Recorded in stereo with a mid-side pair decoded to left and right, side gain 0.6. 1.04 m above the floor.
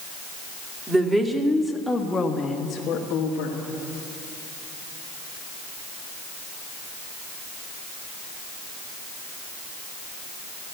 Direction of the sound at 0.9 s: 20° right.